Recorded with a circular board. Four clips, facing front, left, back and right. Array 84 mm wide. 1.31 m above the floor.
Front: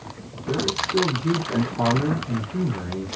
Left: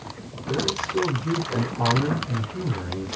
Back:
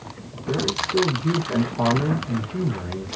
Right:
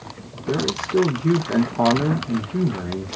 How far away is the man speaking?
About 3 m.